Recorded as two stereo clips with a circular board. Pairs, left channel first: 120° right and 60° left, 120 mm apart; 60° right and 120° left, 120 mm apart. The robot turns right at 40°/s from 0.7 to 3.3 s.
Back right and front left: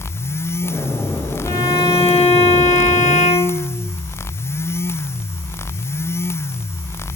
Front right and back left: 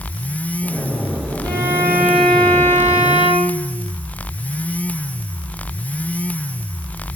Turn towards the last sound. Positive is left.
turn(degrees=-110)